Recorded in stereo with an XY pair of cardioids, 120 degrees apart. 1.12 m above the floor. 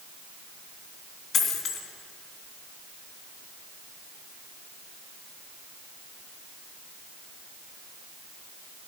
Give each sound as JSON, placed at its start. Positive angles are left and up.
{"t": 1.3, "sound": "a dropped coin", "azimuth_deg": 55, "distance_m": 3.0}